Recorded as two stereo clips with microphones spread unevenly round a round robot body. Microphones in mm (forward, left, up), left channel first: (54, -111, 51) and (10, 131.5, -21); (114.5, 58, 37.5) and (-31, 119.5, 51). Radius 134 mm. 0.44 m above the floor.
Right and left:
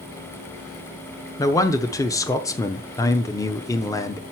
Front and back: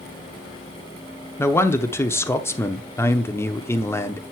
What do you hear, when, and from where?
1.4 s a man speaking: 15° left, 0.9 m